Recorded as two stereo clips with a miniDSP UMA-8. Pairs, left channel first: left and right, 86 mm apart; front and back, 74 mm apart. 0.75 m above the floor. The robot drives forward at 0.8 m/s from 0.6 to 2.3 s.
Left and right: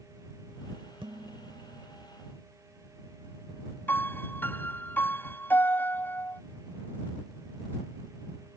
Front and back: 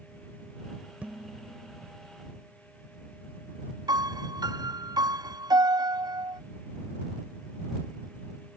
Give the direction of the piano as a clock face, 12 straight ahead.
7 o'clock.